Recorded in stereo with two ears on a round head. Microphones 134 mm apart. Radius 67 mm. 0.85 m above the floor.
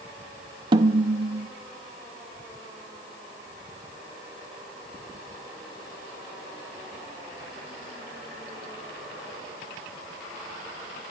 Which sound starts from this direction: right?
A snare drum, at 0.7 s.